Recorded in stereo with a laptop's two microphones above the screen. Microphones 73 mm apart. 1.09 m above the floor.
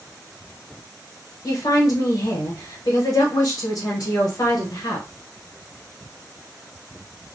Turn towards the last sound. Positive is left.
turn(degrees=60)  # may be behind; listen again after turning